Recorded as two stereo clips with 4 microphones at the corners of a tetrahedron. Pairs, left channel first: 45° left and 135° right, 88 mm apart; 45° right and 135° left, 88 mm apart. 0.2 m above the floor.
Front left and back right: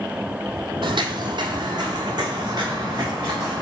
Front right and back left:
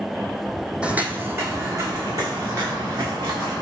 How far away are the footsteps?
About 0.5 m.